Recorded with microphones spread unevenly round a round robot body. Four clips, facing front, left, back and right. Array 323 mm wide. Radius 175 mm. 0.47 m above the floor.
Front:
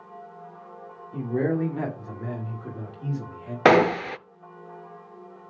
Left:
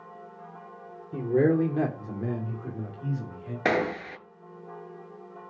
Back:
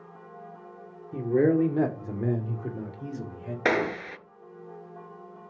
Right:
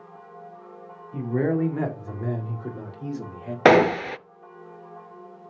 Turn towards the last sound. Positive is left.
turn(degrees=-50)